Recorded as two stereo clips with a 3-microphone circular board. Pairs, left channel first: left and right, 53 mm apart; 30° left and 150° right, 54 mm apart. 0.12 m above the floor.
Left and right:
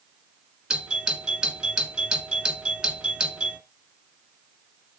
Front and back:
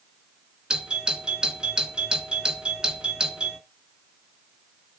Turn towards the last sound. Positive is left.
turn(degrees=-120)